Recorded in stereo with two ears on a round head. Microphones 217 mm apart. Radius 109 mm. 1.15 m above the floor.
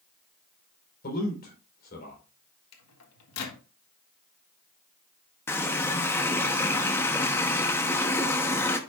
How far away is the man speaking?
About 4.5 m.